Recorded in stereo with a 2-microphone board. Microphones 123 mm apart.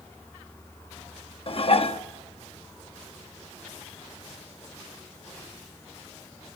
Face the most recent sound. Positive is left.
turn(degrees=50)  # may be behind; listen again after turning